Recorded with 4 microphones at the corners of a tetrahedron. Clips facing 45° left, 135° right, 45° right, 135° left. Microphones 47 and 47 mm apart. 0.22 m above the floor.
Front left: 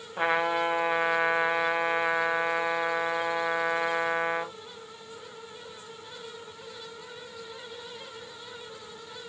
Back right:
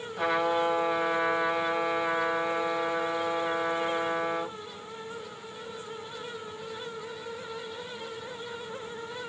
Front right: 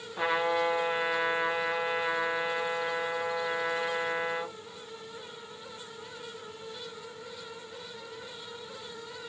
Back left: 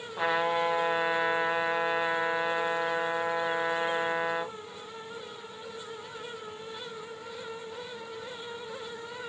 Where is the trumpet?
55° left, 0.9 m.